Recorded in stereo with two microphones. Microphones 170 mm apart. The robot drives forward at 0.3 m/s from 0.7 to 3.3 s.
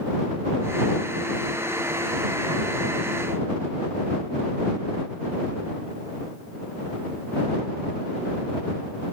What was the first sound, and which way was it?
Only background noise.